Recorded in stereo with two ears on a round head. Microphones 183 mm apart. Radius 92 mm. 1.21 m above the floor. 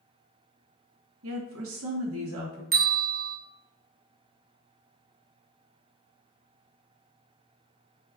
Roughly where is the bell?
Right.